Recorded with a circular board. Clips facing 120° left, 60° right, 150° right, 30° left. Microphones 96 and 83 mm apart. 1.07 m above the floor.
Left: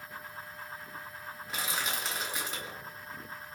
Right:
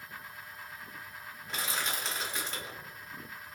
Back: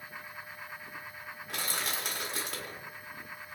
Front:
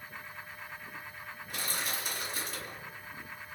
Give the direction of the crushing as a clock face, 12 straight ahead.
5 o'clock.